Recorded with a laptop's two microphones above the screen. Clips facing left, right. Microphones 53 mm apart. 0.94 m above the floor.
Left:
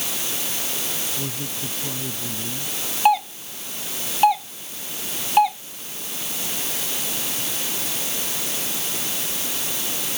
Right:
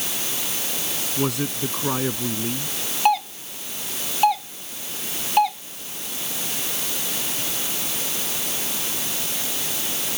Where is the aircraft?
No aircraft in this recording.